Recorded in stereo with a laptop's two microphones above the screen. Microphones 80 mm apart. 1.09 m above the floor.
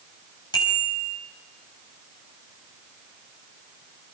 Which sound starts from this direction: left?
A bicycle bell, at 0.5 s.